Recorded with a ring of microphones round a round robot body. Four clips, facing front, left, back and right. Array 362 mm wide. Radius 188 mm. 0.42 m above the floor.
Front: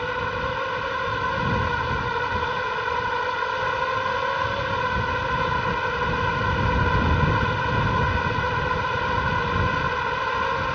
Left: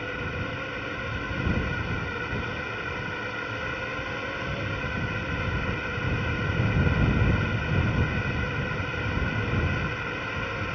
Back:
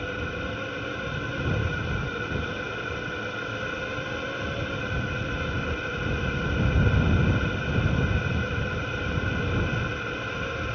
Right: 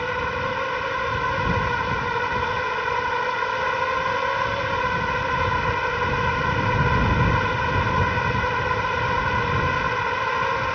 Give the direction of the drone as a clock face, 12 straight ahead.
2 o'clock.